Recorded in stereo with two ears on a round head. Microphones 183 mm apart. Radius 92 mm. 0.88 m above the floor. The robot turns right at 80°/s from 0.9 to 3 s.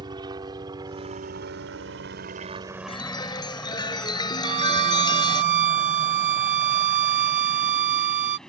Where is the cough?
I don't hear a cough.